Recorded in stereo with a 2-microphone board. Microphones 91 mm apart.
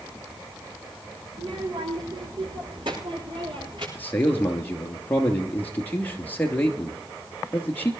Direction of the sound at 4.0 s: 20° left (ahead or behind).